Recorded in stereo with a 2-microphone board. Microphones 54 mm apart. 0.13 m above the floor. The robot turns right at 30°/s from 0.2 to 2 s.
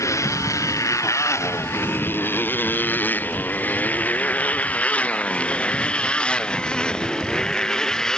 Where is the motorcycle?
70° left (ahead or behind); by 8.2 s 15° left (ahead or behind).